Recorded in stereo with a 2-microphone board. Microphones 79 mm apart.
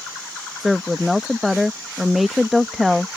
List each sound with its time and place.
0.6 s a woman speaking: centre (ahead or behind)